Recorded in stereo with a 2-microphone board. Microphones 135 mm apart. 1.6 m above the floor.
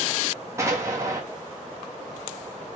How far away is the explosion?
About 2 m.